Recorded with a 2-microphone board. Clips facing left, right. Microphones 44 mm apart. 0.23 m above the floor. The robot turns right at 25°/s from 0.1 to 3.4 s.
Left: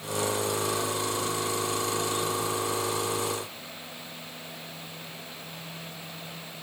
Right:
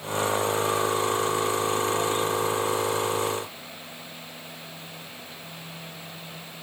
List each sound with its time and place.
Only background noise.